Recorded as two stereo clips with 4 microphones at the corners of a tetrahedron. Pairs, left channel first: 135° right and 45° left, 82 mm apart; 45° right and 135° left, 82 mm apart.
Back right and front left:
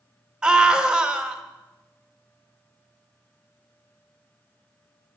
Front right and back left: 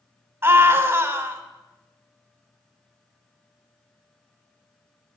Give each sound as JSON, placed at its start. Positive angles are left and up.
{"t": 0.4, "sound": "a scream", "azimuth_deg": 115, "distance_m": 1.1}